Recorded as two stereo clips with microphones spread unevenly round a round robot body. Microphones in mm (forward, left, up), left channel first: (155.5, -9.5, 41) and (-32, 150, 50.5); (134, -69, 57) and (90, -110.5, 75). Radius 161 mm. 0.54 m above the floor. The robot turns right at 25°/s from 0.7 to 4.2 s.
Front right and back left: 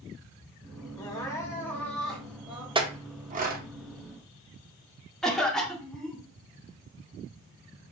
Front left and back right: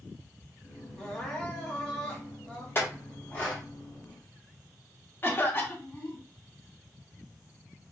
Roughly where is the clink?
Left.